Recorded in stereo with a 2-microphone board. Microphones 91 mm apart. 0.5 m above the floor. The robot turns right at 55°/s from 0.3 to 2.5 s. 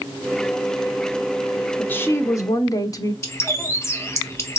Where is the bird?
30° left (ahead or behind), 0.9 m.